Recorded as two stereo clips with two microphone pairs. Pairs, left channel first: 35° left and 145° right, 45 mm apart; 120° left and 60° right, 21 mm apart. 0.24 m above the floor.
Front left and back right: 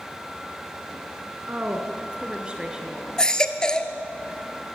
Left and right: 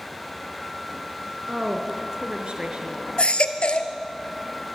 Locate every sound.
1.5 s a woman speaking: 95° right, 2.5 m; by 3.1 s 65° right, 3 m
3.2 s a baby crying: 110° left, 1.3 m